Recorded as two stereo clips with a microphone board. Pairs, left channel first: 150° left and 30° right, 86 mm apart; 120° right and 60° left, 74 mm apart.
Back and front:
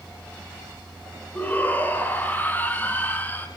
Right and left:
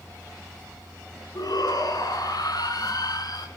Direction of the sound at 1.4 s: 140° right.